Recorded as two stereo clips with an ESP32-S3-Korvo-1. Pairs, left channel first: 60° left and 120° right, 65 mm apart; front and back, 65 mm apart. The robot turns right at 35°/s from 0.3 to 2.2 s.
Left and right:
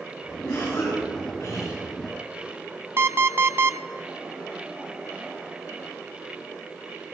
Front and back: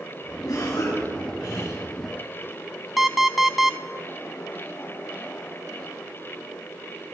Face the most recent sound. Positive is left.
turn(degrees=-90)